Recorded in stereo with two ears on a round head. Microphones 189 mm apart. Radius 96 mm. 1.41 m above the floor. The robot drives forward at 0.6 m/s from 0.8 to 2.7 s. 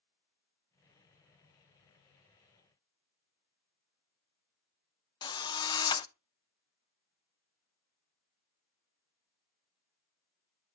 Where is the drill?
20° left (ahead or behind), 0.6 m.